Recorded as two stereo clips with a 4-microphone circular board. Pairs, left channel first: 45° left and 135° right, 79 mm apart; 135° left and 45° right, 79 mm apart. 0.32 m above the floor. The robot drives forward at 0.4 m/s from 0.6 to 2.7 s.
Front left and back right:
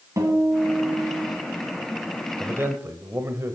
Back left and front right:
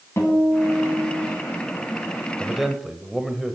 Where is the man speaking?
120° right, 0.9 m; by 3.5 s 130° right, 1.0 m.